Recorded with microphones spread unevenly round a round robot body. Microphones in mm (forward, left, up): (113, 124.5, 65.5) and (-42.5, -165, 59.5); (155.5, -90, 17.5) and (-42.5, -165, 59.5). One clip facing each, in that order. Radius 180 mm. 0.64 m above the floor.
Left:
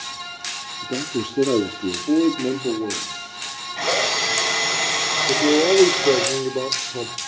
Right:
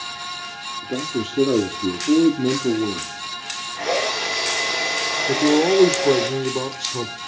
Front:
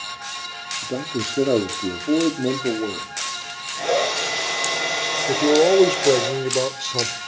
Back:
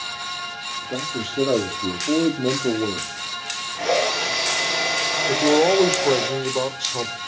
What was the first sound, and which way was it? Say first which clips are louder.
A man speaking: even, front 3 dB; 20° right.